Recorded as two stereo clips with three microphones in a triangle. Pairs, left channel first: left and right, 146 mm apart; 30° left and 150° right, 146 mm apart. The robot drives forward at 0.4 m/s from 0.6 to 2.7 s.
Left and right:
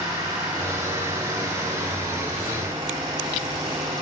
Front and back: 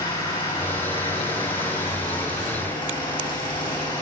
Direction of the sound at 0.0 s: 25° right.